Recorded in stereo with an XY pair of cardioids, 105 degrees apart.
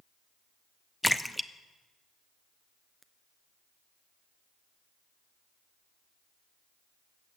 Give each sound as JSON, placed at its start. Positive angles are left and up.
{"t": 1.0, "sound": "a splash", "azimuth_deg": 5, "distance_m": 0.5}